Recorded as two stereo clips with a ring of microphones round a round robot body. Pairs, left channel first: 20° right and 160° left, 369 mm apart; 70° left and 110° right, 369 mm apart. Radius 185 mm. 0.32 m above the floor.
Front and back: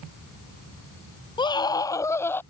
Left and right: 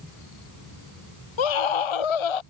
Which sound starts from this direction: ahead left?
A scream, at 1.4 s.